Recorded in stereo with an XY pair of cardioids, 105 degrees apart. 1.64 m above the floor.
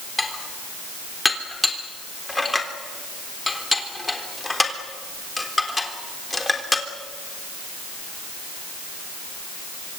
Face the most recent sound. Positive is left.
turn(degrees=15)